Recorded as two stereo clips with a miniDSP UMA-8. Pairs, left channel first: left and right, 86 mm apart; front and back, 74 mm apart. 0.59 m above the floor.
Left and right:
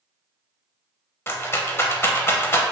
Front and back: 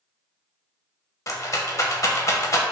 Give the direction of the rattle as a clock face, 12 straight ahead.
11 o'clock.